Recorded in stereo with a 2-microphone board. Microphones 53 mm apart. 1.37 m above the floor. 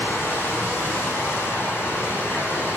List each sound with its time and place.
0.0 s running water: 40° left (ahead or behind), 8.5 m